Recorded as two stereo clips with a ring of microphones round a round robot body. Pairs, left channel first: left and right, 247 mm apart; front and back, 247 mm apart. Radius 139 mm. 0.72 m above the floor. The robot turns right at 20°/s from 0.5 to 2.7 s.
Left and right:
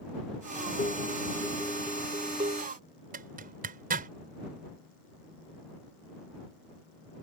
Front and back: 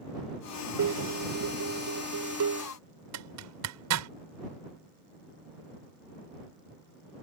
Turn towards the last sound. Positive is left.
turn(degrees=-150)